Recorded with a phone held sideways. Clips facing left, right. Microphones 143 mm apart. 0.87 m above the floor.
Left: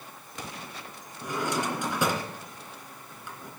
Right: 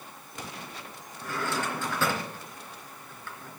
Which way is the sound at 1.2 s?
15° left (ahead or behind).